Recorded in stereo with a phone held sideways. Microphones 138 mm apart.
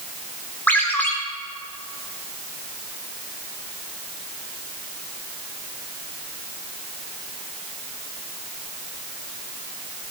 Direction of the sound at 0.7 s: 15° left (ahead or behind).